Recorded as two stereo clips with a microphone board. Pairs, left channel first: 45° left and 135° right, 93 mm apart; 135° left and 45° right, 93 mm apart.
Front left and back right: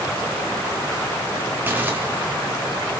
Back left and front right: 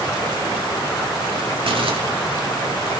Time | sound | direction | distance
1.7 | crumpling | 65° right | 3 m